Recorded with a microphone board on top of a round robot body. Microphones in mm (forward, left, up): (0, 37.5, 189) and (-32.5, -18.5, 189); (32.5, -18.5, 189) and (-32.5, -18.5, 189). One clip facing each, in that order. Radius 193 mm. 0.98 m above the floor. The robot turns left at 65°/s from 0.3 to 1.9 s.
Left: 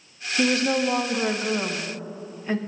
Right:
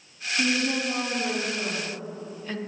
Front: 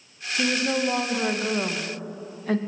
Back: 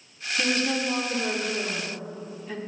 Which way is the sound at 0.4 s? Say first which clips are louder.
Left 4 dB, front 2 dB; 95° left.